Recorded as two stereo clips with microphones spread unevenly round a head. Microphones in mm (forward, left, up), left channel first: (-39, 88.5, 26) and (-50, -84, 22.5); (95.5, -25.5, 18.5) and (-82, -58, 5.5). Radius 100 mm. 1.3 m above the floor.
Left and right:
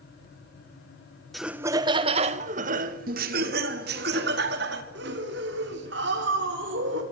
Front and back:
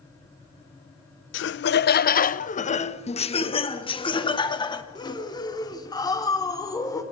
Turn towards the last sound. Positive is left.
turn(degrees=-60)